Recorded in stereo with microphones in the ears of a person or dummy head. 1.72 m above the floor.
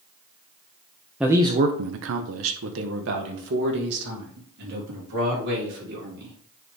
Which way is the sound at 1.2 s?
5° right (ahead or behind).